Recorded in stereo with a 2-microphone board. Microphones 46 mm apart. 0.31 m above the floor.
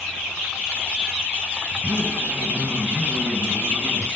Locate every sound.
1.7 s a zipper: 50° right (ahead or behind), 2.5 m